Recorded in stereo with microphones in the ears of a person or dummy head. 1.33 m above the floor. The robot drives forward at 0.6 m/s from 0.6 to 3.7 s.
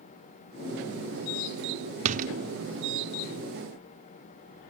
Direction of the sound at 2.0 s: 40° right (ahead or behind).